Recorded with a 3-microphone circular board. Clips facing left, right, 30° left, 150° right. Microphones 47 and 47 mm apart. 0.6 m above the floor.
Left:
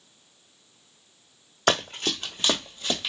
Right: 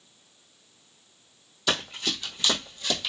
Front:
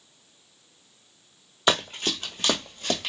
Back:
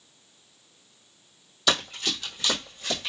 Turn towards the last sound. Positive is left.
turn(degrees=20)